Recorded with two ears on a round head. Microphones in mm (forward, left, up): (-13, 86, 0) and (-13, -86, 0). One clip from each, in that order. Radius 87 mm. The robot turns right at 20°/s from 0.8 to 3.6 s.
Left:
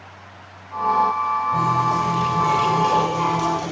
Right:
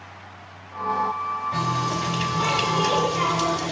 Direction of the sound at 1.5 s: 100° right.